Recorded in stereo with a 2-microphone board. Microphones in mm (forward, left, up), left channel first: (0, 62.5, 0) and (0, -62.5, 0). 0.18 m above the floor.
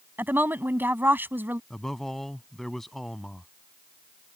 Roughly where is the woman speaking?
Centre.